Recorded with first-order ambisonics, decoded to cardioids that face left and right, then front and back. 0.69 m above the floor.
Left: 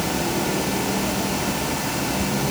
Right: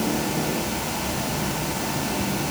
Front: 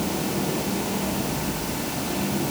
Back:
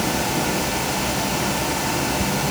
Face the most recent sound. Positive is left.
No sound to turn to.